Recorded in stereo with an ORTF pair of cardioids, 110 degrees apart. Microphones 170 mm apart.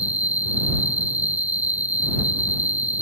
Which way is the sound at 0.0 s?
10° right.